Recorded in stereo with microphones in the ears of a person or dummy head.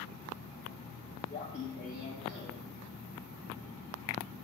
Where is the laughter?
35° left (ahead or behind), 0.7 m; by 4.3 s 80° left, 2.5 m.